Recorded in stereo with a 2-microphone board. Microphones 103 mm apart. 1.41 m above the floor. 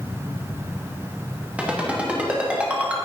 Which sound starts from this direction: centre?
A ringtone, at 1.6 s.